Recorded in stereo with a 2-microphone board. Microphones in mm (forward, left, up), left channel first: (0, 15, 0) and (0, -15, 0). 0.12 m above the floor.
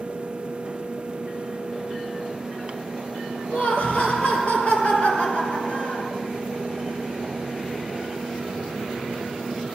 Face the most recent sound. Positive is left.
turn(degrees=50)  # may be behind; listen again after turning